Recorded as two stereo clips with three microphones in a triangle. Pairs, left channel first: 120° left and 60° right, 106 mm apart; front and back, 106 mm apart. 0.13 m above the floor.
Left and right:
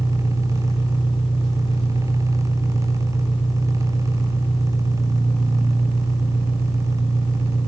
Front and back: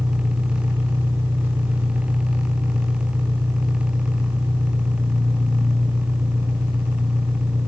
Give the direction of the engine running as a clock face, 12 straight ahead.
8 o'clock.